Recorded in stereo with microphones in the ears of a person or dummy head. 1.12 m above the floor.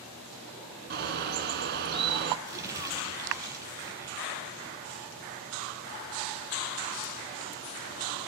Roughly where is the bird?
Right.